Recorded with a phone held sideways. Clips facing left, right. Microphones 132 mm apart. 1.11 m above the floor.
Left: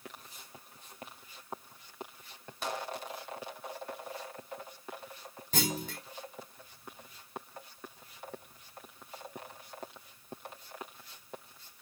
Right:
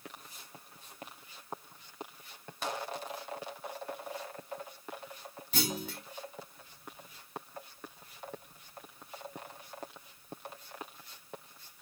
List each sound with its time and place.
5.5 s a clunk: 45° left (ahead or behind), 2 m